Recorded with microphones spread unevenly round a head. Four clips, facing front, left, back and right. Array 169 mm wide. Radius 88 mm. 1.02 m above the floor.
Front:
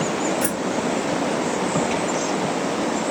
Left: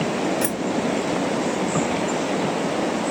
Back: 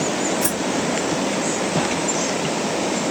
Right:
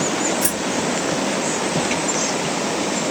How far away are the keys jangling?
About 1.2 m.